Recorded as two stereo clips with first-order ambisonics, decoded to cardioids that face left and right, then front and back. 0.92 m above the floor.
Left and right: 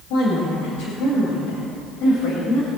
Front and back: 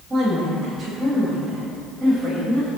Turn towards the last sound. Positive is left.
turn(degrees=100)